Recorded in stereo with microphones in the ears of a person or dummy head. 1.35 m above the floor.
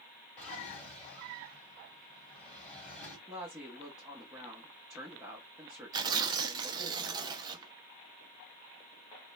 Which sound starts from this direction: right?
Tearing paper, at 5.9 s.